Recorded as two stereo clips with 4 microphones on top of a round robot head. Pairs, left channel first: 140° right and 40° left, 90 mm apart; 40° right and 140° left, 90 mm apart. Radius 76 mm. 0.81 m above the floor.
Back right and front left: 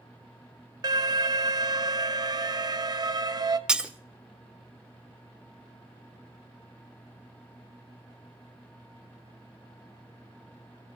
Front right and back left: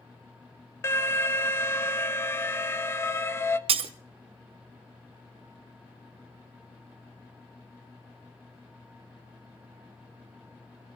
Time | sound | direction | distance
0.8 | an alarm | 15° left | 1.2 m
3.7 | breaking glass | 120° left | 1.1 m